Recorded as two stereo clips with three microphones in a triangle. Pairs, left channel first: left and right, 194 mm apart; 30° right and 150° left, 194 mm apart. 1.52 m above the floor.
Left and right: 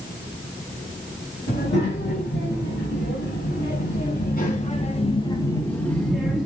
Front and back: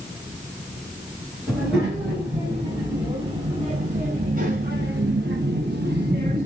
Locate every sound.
1.5 s a child speaking: 65° left, 2 m; by 6.5 s 175° right, 1.3 m